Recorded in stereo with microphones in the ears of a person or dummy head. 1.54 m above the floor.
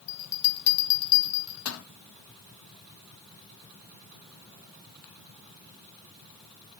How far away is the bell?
About 0.7 m.